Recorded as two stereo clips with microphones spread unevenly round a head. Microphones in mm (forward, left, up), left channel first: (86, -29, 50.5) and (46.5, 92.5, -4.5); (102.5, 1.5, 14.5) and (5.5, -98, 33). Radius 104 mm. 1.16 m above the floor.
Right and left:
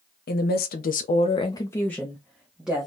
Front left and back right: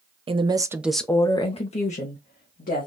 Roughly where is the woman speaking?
Right.